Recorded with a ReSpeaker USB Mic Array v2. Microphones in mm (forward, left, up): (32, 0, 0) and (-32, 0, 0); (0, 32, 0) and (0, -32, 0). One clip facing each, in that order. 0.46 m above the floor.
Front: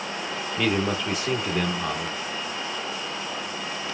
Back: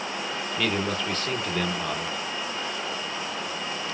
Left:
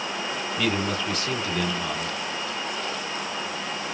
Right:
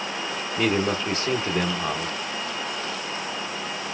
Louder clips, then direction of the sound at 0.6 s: Front 3 dB, right 4 dB; 65° right.